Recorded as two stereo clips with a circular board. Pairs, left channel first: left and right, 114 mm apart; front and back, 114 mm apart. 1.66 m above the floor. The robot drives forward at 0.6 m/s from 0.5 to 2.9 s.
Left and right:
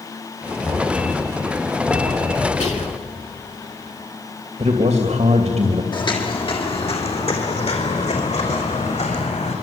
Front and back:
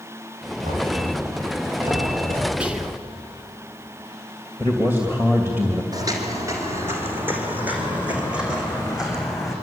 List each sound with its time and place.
0.6 s knocking: 170° left, 8 m
2.6 s whispering: 100° left, 3.5 m
4.6 s a man speaking: 110° right, 2.5 m
5.9 s footsteps: 130° left, 3.5 m; by 9.5 s 90° left, 6 m